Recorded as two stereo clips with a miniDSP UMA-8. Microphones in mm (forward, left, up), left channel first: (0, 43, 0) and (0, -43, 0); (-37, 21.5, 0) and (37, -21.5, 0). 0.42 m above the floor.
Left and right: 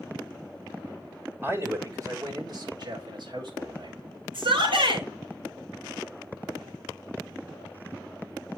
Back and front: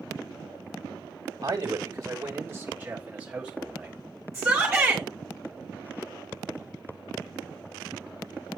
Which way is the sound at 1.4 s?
35° right.